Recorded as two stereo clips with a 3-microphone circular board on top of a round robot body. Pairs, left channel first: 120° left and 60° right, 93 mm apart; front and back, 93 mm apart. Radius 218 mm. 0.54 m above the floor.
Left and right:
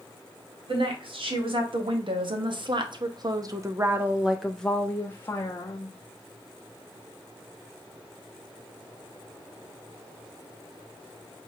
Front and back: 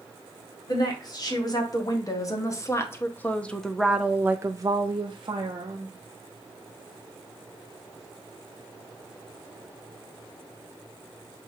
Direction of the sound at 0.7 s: 40° right.